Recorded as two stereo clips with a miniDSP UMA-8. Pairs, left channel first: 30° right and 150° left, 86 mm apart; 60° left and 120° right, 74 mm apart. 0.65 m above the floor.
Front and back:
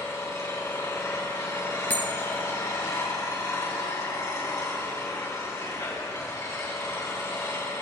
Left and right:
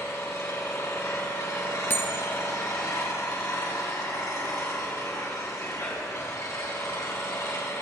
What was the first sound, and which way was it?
An engine running, 20° left.